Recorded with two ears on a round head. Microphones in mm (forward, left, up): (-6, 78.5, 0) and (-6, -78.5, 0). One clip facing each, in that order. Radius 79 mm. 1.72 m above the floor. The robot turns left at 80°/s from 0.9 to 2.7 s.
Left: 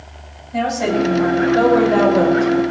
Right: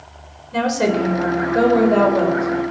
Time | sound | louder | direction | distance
0.5 | a woman speaking | even | 105° right | 6 m